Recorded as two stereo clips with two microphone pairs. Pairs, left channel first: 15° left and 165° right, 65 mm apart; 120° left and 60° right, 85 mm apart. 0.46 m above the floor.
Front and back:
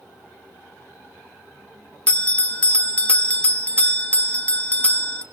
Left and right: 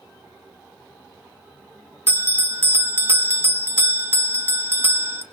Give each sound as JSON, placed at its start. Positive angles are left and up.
{"t": 2.1, "sound": "a bell", "azimuth_deg": -35, "distance_m": 1.4}